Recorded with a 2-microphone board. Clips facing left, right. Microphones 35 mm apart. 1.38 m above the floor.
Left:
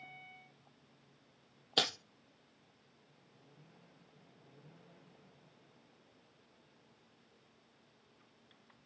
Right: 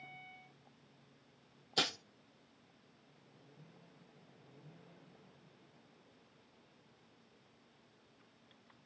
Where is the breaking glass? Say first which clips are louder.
Left 2 dB; 45° left (ahead or behind), 1.8 m.